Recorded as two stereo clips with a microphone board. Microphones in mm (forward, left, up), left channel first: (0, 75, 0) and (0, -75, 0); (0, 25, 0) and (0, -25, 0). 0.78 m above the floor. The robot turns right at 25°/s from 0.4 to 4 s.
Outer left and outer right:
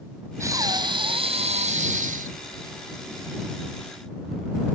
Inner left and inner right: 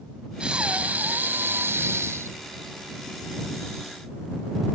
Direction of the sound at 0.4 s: 160° right.